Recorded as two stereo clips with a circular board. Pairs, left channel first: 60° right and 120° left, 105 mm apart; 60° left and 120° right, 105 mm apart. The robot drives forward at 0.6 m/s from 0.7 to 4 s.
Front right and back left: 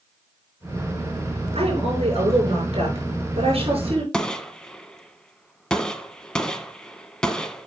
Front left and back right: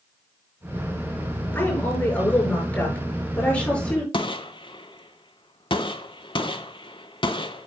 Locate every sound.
1.5 s a woman speaking: 130° left, 6.5 m; by 4.0 s 140° left, 7.5 m
4.1 s a gunshot: 25° left, 1.0 m